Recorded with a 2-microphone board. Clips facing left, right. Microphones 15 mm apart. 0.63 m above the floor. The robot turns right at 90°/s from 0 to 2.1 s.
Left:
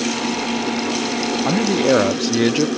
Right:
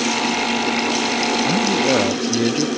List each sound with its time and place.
1.4 s a man speaking: 70° left; by 2.7 s 125° left